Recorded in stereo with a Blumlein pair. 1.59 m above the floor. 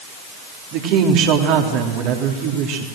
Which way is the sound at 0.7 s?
40° right.